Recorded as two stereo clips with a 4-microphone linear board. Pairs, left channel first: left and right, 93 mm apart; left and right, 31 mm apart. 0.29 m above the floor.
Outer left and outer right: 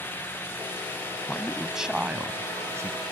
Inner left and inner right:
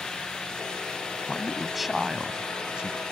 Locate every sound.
1.3 s a man speaking: 5° left (ahead or behind); by 3.0 s 35° right (ahead or behind)